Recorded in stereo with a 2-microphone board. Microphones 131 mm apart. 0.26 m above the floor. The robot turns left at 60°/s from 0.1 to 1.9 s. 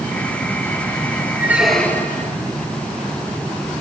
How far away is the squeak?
About 3 m.